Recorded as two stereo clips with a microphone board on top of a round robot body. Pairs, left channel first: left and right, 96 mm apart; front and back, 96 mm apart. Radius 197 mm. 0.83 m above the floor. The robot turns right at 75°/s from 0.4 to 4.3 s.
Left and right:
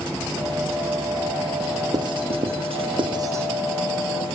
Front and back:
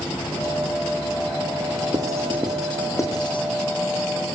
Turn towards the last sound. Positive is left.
turn(degrees=40)